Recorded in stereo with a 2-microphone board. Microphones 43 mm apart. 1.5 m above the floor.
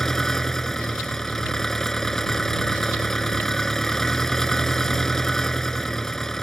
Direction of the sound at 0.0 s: 5° left (ahead or behind).